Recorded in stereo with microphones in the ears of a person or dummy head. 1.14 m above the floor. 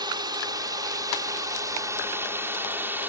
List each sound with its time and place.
0.0 s a drone: 25° right (ahead or behind); by 3.1 s 15° right (ahead or behind)